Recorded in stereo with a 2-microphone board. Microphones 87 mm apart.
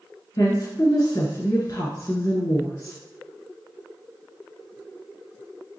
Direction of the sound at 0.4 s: 40° left (ahead or behind).